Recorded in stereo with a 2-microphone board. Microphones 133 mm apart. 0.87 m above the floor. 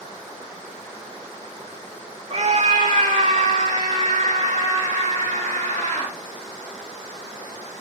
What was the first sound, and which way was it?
A scream, 55° right (ahead or behind).